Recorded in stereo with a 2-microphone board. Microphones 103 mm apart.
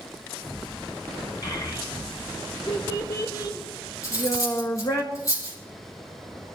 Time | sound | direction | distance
1.4 | a child speaking | 40° left (ahead or behind) | 2.5 m
4.0 | cutlery clinking | 30° left (ahead or behind) | 5 m